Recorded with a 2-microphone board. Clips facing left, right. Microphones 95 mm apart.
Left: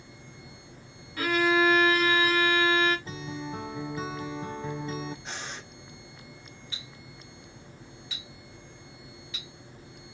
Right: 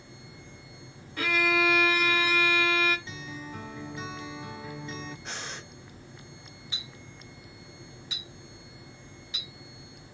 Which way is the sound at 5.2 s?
Centre (ahead or behind).